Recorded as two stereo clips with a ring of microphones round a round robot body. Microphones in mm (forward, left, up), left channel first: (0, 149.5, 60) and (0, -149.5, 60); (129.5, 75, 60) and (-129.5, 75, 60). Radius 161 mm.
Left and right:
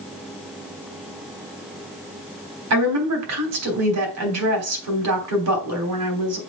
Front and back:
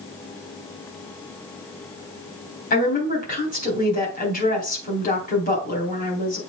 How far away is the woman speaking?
About 3.5 m.